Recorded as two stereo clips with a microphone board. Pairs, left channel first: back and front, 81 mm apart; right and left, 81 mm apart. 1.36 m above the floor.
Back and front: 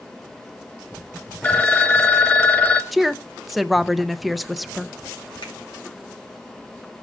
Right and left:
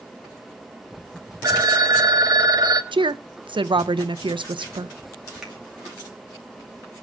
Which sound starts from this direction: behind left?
A phone ringing, at 1.4 s.